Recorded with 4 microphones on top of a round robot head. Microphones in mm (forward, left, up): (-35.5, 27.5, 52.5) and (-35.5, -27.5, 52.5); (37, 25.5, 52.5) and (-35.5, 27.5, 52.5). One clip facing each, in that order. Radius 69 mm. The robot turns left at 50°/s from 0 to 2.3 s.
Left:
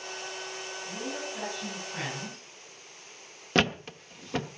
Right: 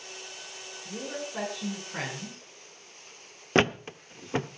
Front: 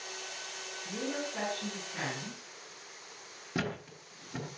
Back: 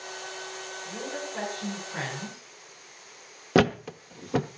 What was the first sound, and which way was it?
A woman speaking, 70° right.